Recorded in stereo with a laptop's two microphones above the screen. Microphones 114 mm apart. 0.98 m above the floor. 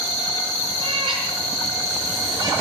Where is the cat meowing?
45° right (ahead or behind), 7 m; by 2.5 s 35° right (ahead or behind), 8 m.